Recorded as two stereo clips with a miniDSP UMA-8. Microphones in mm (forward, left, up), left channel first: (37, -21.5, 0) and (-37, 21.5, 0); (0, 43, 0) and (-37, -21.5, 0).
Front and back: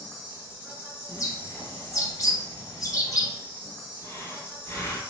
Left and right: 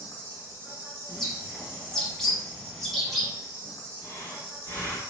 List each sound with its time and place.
0.0 s an insect: 145° right, 1.6 m
1.1 s a bird: 20° right, 0.9 m
4.0 s breathing: 15° left, 1.5 m